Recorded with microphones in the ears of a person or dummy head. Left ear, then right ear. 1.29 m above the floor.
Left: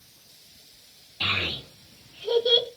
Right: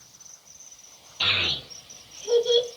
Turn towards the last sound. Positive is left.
turn(degrees=55)  # may be behind; listen again after turning